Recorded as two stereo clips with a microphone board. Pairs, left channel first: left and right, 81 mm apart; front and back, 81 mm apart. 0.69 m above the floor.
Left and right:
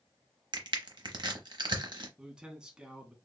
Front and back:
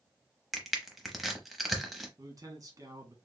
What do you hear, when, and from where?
0.5 s crushing: 90° right, 0.8 m
2.2 s a man speaking: 165° right, 1.2 m